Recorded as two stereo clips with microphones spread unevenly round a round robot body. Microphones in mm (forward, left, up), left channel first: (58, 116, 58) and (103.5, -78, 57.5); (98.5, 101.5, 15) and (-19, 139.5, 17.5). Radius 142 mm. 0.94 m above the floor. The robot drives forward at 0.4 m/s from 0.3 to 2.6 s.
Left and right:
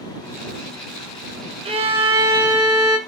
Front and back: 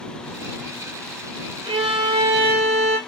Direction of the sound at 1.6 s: 135° right.